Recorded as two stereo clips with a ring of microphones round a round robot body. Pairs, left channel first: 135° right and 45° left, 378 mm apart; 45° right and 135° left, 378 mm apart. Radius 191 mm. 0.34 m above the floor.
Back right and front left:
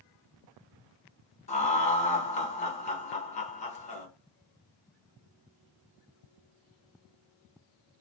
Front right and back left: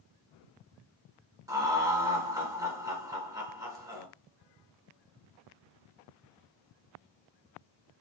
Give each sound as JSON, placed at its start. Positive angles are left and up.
{"t": 1.5, "sound": "laughter", "azimuth_deg": -165, "distance_m": 0.9}